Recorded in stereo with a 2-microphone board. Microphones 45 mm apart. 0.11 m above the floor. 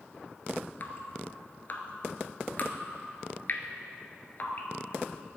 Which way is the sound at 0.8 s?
45° left (ahead or behind).